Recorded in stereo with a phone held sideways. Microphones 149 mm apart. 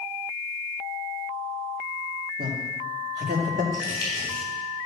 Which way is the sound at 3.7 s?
25° left (ahead or behind).